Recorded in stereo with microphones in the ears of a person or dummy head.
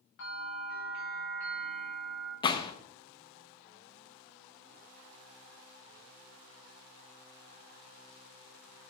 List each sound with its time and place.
0.2 s a bell: 65° left (ahead or behind), 7.5 m
2.4 s a gunshot: 25° left (ahead or behind), 1.1 m